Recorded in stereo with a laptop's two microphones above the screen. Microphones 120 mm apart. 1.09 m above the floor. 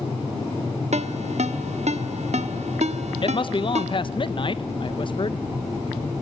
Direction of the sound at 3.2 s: 45° left (ahead or behind).